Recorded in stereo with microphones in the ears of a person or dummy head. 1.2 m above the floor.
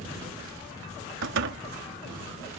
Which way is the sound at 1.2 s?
60° right (ahead or behind).